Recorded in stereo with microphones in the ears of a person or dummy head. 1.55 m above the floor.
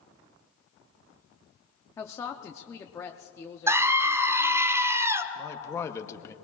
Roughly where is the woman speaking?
Centre.